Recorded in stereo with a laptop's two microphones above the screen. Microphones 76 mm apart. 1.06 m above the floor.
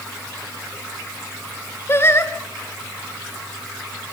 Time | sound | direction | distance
1.9 | singing | 35° left (ahead or behind) | 1.7 m